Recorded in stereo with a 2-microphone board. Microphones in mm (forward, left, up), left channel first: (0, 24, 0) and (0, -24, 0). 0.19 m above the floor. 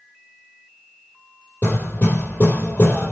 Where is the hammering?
50° left (ahead or behind), 6.5 m.